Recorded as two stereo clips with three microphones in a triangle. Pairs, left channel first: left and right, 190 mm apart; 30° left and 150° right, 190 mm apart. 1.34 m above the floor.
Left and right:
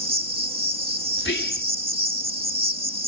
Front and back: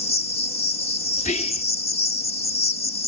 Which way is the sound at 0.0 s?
30° right.